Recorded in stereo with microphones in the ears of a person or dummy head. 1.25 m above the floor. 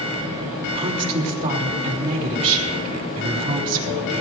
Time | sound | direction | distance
0.7 | a woman speaking | 45° right (ahead or behind) | 3 m